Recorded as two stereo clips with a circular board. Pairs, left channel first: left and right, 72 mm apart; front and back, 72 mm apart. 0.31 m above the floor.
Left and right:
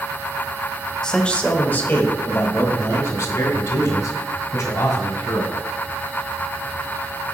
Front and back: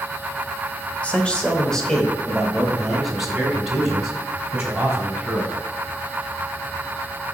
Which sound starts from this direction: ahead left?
A man speaking, at 1.0 s.